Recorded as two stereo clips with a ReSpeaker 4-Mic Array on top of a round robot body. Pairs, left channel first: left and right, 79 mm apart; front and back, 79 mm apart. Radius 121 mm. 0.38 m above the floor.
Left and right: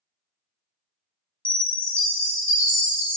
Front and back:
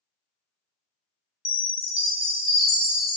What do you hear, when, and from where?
1.4 s a chime: 115° right, 1.3 m